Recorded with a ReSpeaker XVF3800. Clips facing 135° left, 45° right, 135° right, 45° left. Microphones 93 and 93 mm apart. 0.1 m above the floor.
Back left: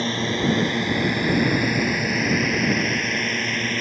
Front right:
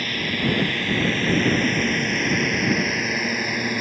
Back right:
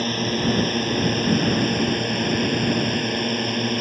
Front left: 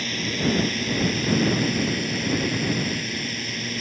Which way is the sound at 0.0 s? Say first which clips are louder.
Back left 3 dB, back right 3 dB; 170° right.